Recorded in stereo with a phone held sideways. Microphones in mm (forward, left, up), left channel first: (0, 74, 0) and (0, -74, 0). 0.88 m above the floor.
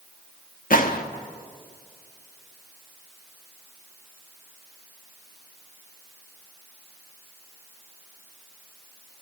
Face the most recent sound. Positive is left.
turn(degrees=70)  # may be behind; listen again after turning